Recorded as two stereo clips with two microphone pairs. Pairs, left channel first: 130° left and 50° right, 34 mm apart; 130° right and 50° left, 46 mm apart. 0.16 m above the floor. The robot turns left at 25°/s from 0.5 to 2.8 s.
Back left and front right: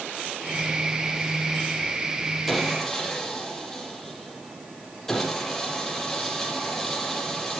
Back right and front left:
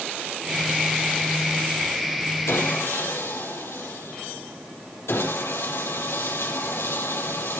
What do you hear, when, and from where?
2.5 s sawing: 140° right, 5 m; by 7.6 s 150° right, 5 m